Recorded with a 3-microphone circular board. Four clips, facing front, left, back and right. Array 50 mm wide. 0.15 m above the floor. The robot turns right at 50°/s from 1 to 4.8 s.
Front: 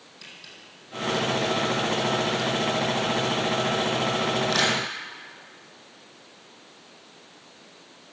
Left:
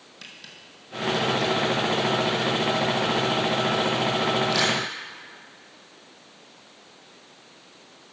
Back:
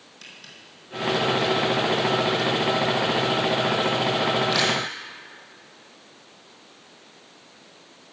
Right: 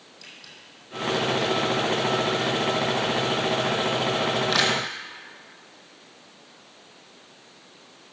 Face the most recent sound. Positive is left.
turn(degrees=-65)